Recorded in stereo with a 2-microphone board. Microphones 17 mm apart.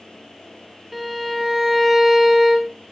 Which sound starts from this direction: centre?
A violin, at 0.9 s.